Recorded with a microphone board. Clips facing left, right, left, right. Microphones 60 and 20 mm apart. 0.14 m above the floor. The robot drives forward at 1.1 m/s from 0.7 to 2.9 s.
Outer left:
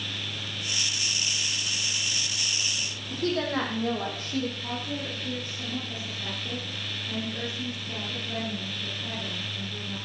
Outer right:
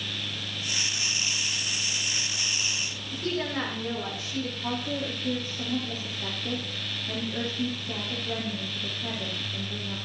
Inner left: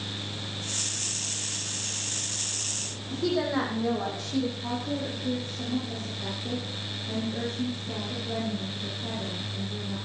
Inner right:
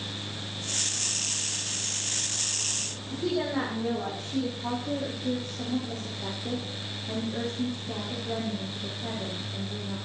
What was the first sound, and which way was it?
A woman speaking, 45° left (ahead or behind).